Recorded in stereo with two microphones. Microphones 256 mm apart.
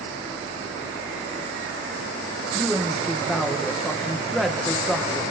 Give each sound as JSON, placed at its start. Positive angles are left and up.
{"t": 2.5, "sound": "a woman speaking", "side_deg": 0, "distance_m": 2.0}